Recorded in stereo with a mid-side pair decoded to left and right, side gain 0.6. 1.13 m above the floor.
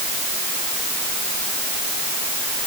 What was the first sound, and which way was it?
Only background noise.